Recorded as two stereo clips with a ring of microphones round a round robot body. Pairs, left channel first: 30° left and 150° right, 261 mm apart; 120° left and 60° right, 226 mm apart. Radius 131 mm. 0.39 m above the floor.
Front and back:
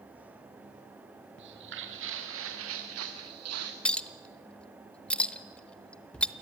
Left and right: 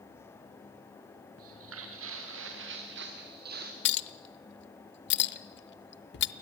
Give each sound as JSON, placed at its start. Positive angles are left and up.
{"t": 1.4, "sound": "footsteps", "azimuth_deg": -100, "distance_m": 4.0}
{"t": 3.9, "sound": "a clink", "azimuth_deg": 115, "distance_m": 0.8}